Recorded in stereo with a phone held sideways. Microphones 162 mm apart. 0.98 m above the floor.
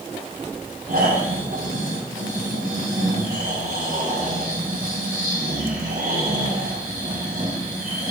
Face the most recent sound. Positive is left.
turn(degrees=-80)